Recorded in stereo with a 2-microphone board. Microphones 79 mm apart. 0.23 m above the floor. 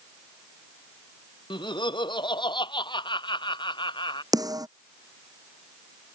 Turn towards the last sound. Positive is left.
turn(degrees=-50)  # may be behind; listen again after turning